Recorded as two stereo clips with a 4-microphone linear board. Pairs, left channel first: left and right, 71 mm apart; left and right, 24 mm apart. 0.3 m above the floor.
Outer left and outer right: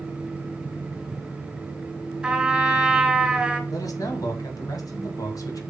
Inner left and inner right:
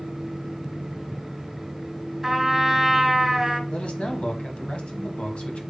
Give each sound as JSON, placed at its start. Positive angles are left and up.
{"t": 2.2, "sound": "a trumpet", "side_deg": -10, "distance_m": 2.0}
{"t": 3.7, "sound": "a man speaking", "side_deg": 60, "distance_m": 2.0}